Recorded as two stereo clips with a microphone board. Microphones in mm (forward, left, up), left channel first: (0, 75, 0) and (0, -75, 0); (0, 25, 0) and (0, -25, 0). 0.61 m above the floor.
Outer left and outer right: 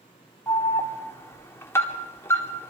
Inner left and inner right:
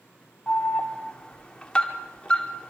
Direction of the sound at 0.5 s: 15° left (ahead or behind).